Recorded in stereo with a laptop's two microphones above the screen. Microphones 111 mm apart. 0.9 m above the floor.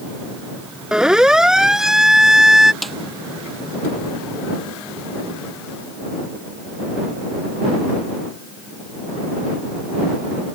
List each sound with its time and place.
0.9 s a siren: 5° right (ahead or behind)
2.8 s a snare drum: centre (ahead or behind)